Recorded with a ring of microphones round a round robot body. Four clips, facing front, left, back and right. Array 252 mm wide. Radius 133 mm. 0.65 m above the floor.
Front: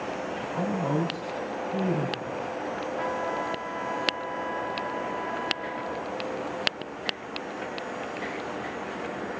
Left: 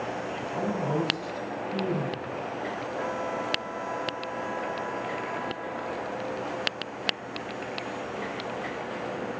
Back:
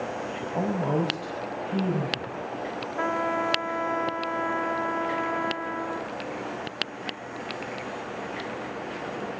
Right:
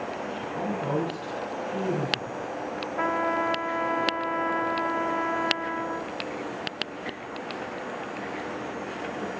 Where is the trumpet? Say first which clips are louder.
Right 7 dB, back 5 dB; 130° right, 1.2 m.